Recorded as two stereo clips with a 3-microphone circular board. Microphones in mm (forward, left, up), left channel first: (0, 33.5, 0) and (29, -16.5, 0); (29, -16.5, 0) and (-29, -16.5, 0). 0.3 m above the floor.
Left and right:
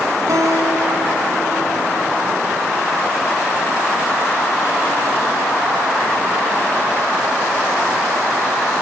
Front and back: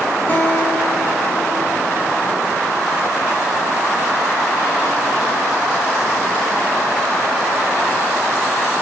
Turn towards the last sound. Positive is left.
turn(degrees=-60)